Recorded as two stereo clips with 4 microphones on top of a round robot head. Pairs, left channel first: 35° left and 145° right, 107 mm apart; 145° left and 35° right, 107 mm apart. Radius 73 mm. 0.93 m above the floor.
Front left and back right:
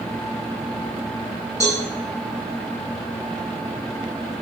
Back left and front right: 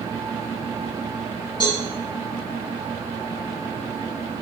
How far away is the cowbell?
About 7 m.